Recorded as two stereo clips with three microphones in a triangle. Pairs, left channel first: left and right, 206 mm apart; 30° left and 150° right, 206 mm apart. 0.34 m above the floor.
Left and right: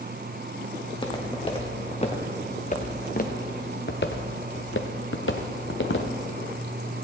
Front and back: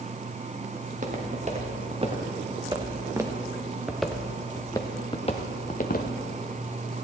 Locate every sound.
0.8 s footsteps: 160° left, 2.5 m; by 6.1 s 70° left, 1.4 m